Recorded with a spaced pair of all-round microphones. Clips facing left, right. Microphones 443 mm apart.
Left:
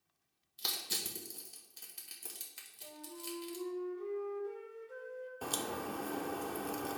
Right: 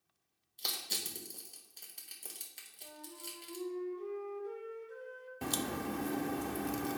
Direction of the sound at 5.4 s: 45° right (ahead or behind).